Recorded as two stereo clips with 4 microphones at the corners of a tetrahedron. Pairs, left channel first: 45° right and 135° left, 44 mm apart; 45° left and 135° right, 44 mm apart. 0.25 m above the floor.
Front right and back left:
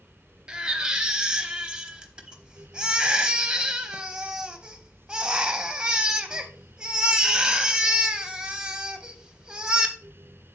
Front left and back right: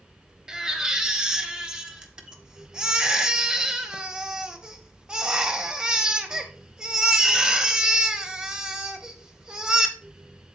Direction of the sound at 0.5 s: 175° left.